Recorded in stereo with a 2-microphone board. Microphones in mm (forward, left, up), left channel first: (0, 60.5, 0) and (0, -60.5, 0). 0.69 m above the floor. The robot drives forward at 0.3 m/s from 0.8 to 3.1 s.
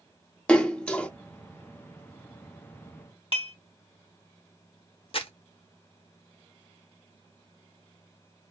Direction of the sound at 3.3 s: 50° left (ahead or behind).